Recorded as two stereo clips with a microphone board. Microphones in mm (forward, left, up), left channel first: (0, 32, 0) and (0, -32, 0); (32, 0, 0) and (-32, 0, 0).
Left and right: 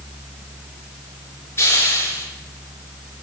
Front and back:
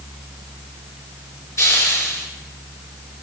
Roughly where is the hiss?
Ahead left.